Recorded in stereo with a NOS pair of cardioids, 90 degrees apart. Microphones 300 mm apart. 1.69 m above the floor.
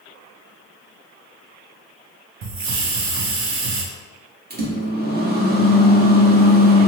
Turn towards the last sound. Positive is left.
turn(degrees=-35)